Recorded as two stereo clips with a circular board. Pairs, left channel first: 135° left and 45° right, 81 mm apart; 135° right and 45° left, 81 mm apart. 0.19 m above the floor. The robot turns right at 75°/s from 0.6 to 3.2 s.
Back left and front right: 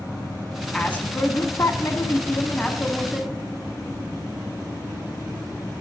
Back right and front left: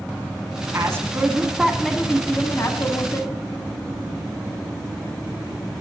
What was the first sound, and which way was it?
A woman speaking, 65° left.